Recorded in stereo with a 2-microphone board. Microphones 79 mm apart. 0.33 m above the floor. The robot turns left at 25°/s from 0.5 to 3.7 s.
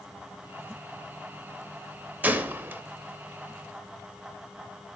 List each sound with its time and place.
2.2 s a gunshot: 20° right (ahead or behind), 0.6 m; by 2.8 s 25° right (ahead or behind), 0.6 m